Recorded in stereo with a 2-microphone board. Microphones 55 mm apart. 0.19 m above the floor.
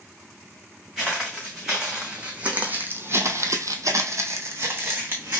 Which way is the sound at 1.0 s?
5° right (ahead or behind).